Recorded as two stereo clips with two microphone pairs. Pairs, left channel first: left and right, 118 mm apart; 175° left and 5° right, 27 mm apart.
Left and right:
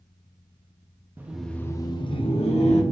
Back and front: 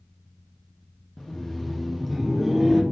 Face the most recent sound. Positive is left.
turn(degrees=80)